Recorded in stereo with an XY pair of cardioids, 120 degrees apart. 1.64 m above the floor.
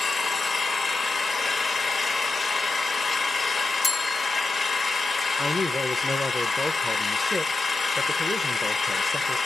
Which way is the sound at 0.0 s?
25° left.